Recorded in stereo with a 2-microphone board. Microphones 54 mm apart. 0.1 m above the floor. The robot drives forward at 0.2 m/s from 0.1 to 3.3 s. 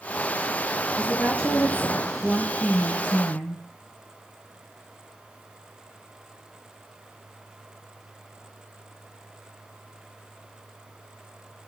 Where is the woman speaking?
20° left (ahead or behind), 2 m.